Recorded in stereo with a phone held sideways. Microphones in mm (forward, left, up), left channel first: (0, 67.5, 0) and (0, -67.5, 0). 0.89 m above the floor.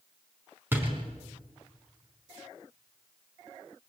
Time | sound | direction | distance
0.7 | a door slam | 15° right (ahead or behind) | 5 m